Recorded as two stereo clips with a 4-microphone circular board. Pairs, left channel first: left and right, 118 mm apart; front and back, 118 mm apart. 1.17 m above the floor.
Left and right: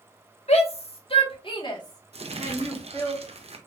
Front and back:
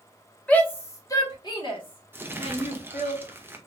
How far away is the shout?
About 1.4 m.